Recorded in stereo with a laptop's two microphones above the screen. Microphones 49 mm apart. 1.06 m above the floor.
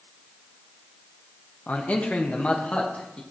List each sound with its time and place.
1.7 s a man speaking: 30° left (ahead or behind), 0.8 m; by 3.2 s 25° left (ahead or behind), 1.7 m